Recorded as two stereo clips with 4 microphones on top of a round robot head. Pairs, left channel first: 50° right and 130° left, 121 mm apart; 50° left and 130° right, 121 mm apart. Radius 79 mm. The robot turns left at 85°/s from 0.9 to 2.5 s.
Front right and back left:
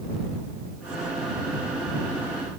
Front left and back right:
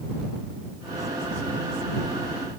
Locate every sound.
Only background noise.